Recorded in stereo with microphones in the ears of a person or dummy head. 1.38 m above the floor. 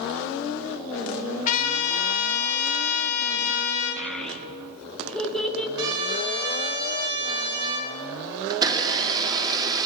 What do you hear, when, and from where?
1.4 s a trumpet: 50° left (ahead or behind), 1.4 m
4.0 s a child speaking: centre (ahead or behind), 1.0 m
5.8 s a trumpet: 60° right (ahead or behind), 3 m
8.5 s a blender: 20° right (ahead or behind), 1.1 m